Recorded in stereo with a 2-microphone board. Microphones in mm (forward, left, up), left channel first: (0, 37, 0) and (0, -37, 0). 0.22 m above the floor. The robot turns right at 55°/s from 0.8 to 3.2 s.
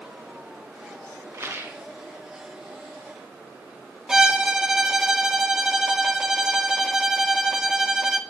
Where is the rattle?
40° right (ahead or behind), 1.5 m; by 1.8 s 20° right (ahead or behind), 1.5 m.